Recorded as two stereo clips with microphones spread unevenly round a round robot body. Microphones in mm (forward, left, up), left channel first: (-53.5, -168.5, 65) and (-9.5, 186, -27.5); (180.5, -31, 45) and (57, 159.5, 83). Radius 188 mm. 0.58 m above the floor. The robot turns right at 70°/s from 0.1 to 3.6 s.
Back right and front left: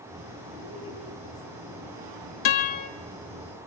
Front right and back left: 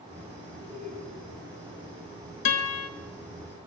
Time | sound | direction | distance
0.6 | laughter | 125° right | 6.5 m
2.5 | a guitar | 85° right | 1.5 m